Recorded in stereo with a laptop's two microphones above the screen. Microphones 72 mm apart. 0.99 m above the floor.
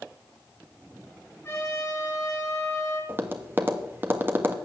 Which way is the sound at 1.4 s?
30° left (ahead or behind).